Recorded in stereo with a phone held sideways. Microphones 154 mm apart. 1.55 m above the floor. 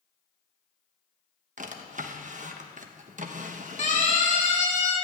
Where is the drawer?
55° right (ahead or behind), 1.0 m.